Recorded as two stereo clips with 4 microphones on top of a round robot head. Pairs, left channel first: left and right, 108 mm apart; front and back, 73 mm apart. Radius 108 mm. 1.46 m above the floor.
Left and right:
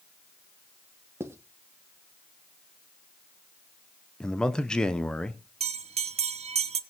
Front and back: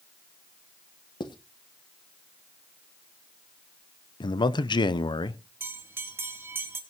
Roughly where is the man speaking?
Ahead.